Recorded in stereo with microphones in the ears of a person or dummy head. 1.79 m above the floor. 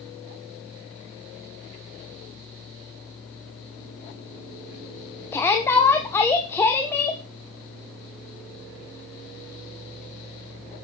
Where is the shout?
15° left (ahead or behind), 1.2 m.